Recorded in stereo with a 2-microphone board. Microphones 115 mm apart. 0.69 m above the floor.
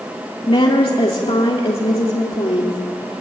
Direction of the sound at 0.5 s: 50° left (ahead or behind).